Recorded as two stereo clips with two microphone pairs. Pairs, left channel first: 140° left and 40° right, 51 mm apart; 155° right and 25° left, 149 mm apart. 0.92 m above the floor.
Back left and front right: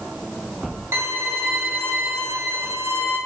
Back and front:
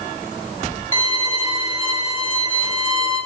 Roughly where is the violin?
Ahead.